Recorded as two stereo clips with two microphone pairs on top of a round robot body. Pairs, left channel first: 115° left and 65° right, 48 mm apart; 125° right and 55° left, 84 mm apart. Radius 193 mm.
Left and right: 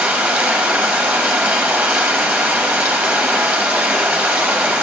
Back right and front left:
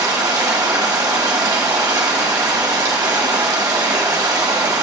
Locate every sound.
0.0 s running water: straight ahead, 1.3 m